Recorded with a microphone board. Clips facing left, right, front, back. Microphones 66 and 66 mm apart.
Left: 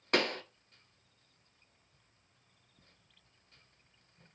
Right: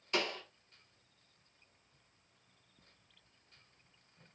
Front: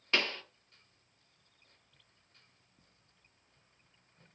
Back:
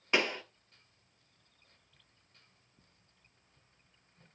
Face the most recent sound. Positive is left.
turn(degrees=105)